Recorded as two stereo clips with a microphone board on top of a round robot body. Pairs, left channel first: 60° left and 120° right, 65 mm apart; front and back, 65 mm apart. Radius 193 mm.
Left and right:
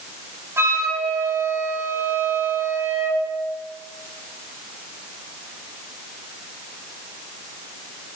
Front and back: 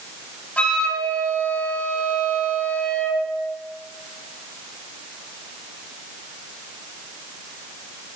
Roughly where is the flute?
Right.